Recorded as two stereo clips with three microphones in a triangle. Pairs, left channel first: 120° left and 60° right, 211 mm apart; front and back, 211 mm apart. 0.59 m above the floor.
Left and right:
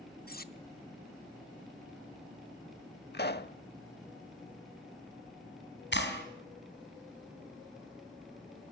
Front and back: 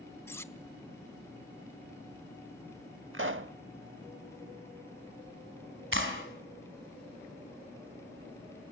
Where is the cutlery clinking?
80° left, 0.8 m.